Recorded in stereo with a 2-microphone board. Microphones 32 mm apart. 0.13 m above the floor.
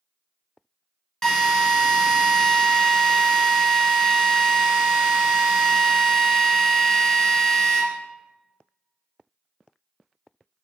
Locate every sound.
1.2 s a drill: 15° left (ahead or behind), 1.2 m